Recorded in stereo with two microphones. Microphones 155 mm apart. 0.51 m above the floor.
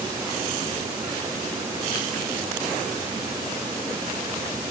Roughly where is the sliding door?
I don't hear a sliding door.